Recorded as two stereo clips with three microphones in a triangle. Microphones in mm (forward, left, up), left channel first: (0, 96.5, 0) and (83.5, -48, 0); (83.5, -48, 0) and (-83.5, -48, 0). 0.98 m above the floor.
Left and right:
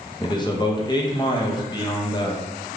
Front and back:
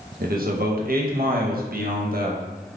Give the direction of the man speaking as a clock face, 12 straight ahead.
6 o'clock.